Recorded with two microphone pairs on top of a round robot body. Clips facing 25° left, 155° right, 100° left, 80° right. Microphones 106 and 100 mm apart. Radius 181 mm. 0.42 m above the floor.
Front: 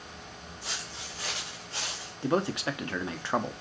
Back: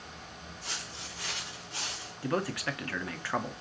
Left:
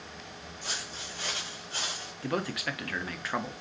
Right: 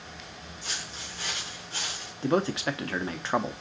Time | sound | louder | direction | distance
0.6 | footsteps | front 2 dB, left 1 dB | 60° left | 1.9 m
2.2 | a man speaking | front 4 dB, right 7 dB | 30° right | 0.8 m